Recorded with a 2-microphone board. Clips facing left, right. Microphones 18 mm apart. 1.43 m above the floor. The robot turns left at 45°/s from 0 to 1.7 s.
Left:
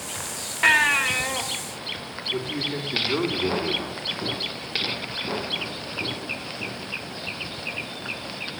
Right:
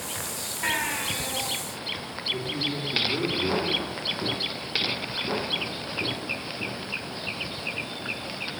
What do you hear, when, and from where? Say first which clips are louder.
0.6 s a baby crying: left 10 dB; 140° left, 2.5 m; by 1.4 s 105° left, 2.5 m
2.3 s a man speaking: left 2 dB; 75° left (ahead or behind), 3.5 m